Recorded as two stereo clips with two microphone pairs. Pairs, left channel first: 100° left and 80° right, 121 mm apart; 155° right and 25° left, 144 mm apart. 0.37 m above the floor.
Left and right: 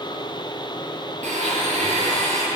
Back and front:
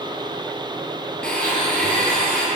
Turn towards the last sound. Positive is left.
turn(degrees=-70)